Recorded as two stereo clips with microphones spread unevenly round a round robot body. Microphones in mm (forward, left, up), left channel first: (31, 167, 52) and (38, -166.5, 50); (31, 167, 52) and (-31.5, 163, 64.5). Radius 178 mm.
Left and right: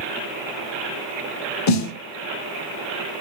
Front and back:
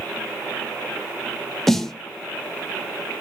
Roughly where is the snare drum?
Left.